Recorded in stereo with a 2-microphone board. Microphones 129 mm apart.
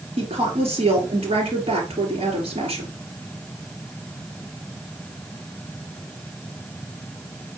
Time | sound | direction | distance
0.2 | a woman speaking | 50° right (ahead or behind) | 3.5 m